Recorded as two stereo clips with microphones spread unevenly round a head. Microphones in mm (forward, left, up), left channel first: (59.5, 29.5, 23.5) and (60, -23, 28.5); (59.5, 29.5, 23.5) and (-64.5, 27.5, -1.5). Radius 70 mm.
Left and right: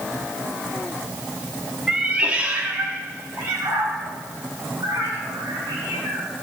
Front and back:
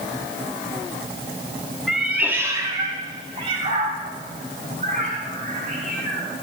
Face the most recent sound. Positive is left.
turn(degrees=-135)